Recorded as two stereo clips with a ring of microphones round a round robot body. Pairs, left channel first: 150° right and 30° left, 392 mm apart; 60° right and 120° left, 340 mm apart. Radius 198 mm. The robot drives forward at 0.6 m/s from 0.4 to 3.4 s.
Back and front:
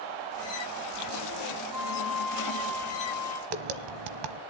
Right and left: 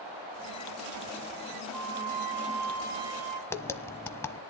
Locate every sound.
1.7 s a flute: 115° left, 4.5 m; by 3.4 s 125° left, 5 m
3.5 s tapping: 20° left, 1.2 m